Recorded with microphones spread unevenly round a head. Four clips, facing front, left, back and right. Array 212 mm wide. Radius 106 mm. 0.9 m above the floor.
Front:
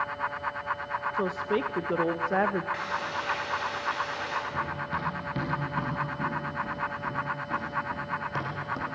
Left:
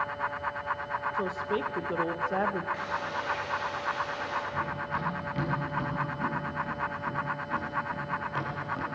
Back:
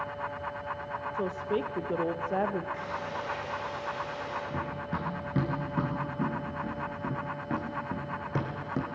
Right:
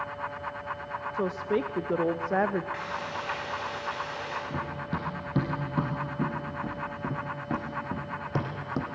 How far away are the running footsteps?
About 5 m.